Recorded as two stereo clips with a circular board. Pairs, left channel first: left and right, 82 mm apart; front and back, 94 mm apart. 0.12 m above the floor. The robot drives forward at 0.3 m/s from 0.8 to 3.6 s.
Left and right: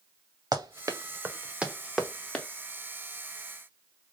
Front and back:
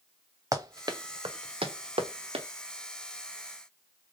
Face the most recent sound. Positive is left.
turn(degrees=170)